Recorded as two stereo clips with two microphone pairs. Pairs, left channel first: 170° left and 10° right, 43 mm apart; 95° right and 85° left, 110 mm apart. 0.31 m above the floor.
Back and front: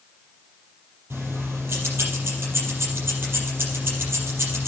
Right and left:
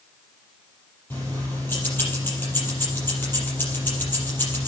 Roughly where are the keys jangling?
Ahead right.